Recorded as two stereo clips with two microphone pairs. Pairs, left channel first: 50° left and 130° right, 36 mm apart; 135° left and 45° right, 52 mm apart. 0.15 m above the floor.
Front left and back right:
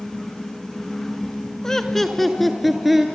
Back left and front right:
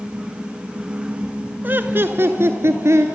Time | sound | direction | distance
1.6 | laughter | 15° right | 1.4 m